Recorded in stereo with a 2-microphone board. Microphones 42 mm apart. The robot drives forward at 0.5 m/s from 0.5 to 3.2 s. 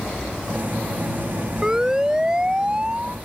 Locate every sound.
1.6 s a siren: 15° right (ahead or behind); by 3.2 s 25° right (ahead or behind)